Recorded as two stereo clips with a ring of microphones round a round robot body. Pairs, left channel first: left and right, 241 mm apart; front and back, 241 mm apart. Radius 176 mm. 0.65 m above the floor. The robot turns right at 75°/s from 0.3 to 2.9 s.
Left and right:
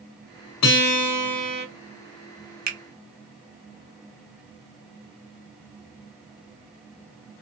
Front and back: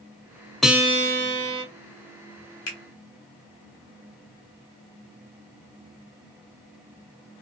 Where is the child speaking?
No child speaking in this recording.